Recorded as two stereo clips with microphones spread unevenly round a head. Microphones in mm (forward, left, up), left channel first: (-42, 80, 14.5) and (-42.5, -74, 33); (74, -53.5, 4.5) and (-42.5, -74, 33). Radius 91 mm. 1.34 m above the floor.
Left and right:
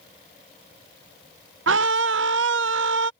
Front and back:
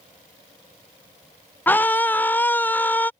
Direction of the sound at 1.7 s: 65° right.